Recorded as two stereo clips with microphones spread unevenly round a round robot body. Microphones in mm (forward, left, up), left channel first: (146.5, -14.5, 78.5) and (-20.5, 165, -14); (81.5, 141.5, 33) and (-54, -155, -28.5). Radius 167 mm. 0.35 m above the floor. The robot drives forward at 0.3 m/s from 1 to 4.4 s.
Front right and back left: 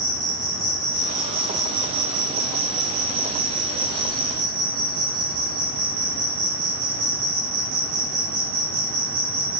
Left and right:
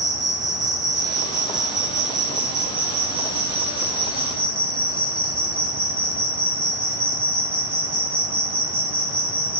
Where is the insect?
160° left, 5.5 m; by 9.6 s 165° left, 6.5 m.